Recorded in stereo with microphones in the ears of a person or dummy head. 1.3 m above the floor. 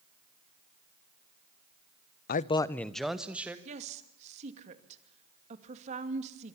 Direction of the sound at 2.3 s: 45° left (ahead or behind).